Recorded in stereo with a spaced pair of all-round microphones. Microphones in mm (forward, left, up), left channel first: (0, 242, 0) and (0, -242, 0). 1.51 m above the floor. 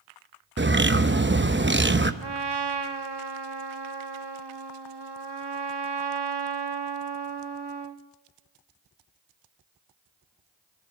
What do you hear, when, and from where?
0.6 s a bird: 25° right (ahead or behind), 0.8 m
2.2 s a trumpet: 55° right (ahead or behind), 1.1 m